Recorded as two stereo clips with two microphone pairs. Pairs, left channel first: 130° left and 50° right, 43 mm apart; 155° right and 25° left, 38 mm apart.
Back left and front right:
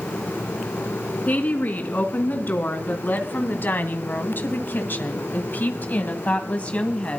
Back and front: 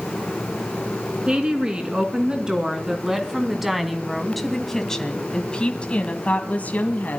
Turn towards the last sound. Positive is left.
turn(degrees=-175)